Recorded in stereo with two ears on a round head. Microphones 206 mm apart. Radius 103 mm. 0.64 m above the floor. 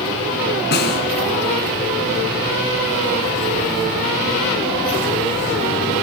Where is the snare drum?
45° left (ahead or behind), 3 m.